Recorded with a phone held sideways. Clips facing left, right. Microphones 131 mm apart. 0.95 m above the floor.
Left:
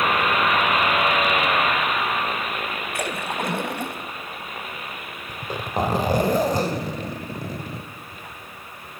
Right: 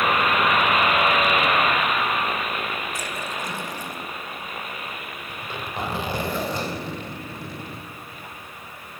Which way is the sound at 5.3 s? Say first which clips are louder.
Left 6 dB; 40° left (ahead or behind).